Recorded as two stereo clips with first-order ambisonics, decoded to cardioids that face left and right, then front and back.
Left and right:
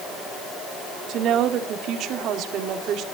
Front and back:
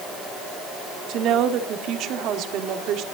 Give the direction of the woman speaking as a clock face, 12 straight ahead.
5 o'clock.